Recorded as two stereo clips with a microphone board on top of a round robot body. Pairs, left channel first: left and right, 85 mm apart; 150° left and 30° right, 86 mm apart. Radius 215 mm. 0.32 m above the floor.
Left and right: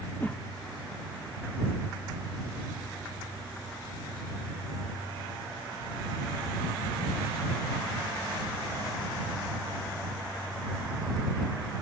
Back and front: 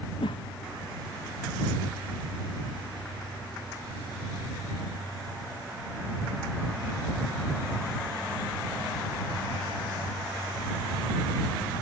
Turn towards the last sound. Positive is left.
turn(degrees=160)